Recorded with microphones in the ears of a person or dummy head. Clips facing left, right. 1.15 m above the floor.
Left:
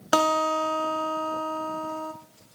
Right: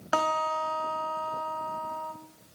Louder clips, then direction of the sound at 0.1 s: Left 6 dB; 45° left (ahead or behind).